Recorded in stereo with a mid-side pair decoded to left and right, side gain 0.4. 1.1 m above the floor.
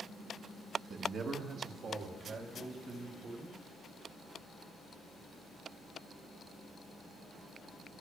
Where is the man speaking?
60° right, 1.3 m; by 3.5 s 70° right, 5 m.